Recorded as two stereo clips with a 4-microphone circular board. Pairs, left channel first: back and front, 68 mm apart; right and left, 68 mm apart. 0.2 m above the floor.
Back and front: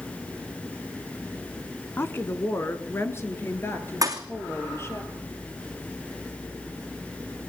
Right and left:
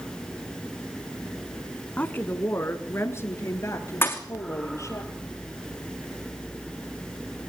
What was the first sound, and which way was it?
A woman speaking, 145° right.